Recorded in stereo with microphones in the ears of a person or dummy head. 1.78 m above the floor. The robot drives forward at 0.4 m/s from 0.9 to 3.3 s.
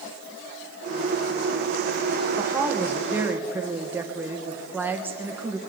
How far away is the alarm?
No alarm in this recording.